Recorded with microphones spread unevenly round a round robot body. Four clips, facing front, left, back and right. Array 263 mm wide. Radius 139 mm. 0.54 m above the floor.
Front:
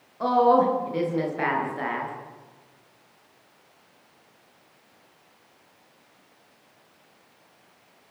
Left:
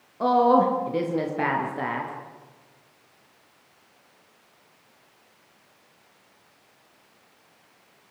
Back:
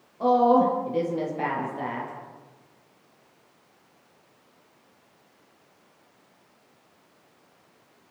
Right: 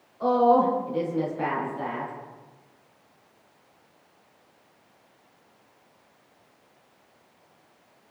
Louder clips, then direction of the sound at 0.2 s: Left 1 dB, even; 90° left.